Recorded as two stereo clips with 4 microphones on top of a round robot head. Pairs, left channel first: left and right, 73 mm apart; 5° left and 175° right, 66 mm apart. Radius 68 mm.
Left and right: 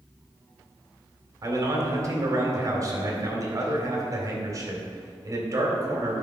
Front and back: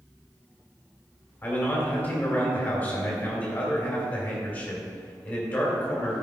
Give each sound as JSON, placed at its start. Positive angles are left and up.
{"t": 1.4, "sound": "a man speaking", "azimuth_deg": -55, "distance_m": 2.5}